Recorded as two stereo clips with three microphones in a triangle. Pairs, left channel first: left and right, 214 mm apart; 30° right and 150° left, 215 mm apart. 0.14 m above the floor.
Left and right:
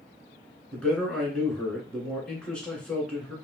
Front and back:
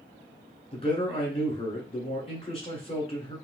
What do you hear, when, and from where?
0.7 s a man speaking: 10° left, 2.0 m